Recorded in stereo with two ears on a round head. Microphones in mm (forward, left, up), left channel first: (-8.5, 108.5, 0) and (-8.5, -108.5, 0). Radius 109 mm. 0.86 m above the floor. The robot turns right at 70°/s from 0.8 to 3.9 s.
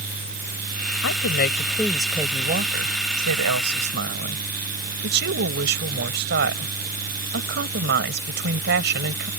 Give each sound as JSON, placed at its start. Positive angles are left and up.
{"t": 1.0, "sound": "a woman speaking", "azimuth_deg": 110}